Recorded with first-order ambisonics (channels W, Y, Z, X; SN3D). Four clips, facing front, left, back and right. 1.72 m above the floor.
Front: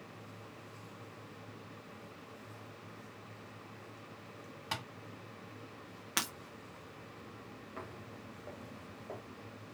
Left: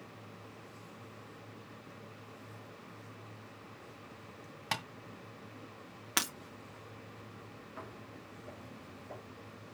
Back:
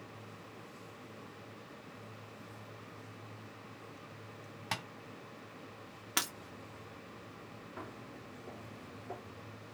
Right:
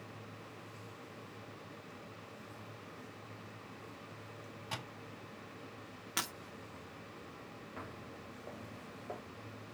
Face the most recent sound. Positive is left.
turn(degrees=-70)